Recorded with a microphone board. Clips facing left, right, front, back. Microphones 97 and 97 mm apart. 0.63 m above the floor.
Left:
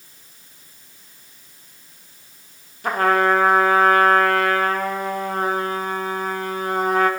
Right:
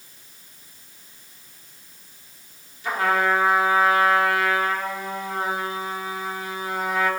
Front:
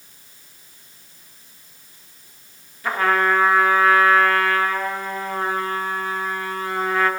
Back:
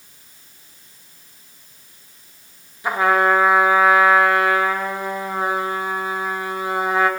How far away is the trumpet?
About 1.0 m.